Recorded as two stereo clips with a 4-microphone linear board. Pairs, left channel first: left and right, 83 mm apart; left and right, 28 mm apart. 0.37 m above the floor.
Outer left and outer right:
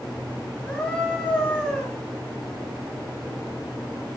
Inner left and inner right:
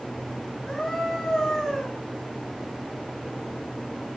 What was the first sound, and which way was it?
A scream, 15° left (ahead or behind).